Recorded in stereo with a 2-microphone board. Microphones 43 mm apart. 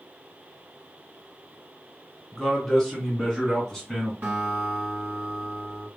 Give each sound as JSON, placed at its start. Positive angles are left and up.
{"t": 2.3, "sound": "a man speaking", "side_deg": 10, "distance_m": 1.9}
{"t": 4.2, "sound": "a guitar", "side_deg": -30, "distance_m": 1.3}